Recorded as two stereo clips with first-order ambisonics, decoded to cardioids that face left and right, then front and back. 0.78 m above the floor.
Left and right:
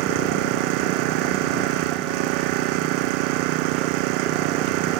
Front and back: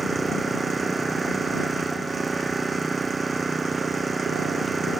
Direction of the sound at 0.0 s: 105° right.